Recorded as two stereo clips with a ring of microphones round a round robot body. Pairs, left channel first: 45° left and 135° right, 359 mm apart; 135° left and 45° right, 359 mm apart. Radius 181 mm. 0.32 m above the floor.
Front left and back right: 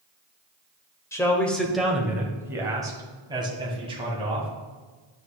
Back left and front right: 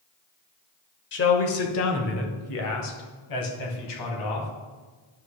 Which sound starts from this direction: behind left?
A man speaking, at 1.1 s.